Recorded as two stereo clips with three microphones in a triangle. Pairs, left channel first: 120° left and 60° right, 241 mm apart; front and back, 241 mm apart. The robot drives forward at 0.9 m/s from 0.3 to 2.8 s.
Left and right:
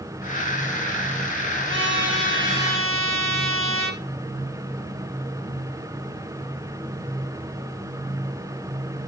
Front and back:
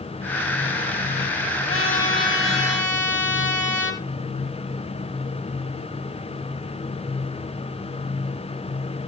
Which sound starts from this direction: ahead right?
A trumpet, at 1.7 s.